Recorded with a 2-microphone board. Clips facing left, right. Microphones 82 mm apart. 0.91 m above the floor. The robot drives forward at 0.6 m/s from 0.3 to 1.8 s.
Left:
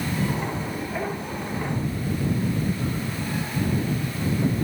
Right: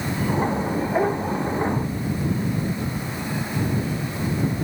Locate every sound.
Only background noise.